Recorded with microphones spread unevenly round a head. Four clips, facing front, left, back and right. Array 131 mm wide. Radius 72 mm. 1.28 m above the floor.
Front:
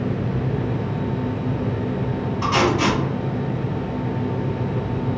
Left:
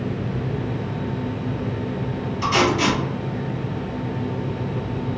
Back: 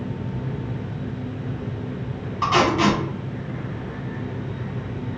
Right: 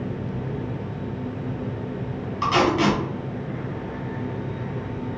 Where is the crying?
No crying in this recording.